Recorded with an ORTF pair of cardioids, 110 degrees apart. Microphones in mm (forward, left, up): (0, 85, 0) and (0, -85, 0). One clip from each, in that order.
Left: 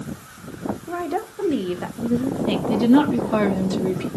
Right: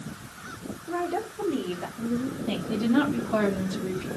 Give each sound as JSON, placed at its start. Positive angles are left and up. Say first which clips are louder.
{"t": 0.9, "sound": "a woman speaking", "louder": "left 1 dB", "azimuth_deg": 45, "distance_m": 2.0}
{"t": 2.7, "sound": "a woman speaking", "louder": "left 7 dB", "azimuth_deg": 55, "distance_m": 2.0}